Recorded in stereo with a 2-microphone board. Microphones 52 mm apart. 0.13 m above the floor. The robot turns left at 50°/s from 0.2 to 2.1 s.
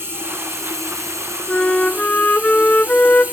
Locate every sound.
0.0 s running water: 55° right, 5.5 m; by 3.3 s 150° right, 5.5 m
1.5 s a flute: 165° left, 1.0 m; by 3.2 s 135° left, 1.0 m